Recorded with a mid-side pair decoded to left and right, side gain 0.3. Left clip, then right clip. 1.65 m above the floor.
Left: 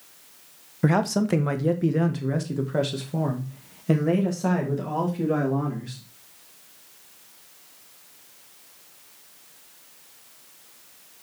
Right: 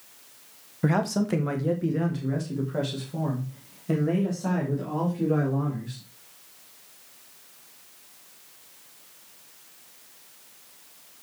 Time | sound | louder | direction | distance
0.8 | a man speaking | left 3 dB | 30° left | 1.3 m